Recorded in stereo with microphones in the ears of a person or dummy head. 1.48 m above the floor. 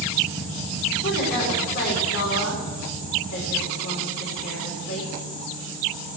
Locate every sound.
1.0 s a woman speaking: 55° left (ahead or behind), 5.5 m